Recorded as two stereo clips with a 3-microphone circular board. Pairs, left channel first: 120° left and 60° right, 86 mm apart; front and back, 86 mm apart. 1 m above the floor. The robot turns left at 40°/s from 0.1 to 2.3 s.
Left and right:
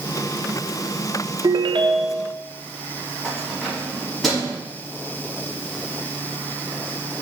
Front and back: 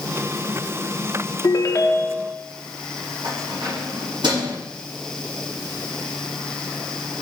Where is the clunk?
No clunk in this recording.